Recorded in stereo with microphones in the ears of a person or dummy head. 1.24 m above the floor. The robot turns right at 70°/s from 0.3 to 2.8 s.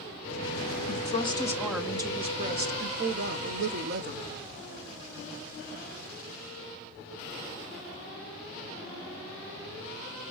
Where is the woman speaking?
125° left, 0.8 m; by 4.2 s 100° right, 0.8 m.